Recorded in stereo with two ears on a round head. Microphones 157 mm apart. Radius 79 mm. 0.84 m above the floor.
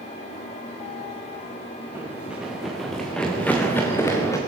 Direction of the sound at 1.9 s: 10° right (ahead or behind).